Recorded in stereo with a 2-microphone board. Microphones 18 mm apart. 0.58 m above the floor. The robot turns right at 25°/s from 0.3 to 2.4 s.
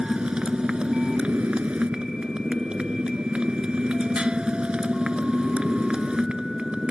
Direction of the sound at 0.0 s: 125° right.